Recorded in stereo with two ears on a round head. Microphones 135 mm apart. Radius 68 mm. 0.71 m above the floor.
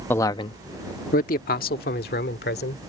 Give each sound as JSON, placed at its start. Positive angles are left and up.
{"t": 0.1, "sound": "a man speaking", "side_deg": 10}